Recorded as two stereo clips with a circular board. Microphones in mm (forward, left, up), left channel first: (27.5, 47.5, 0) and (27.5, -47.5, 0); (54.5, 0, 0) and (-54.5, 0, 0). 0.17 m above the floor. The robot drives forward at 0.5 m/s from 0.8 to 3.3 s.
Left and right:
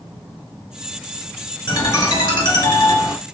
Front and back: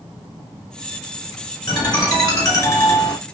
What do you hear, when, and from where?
1.7 s a ringtone: 45° left, 1.9 m; by 3.2 s 75° left, 1.5 m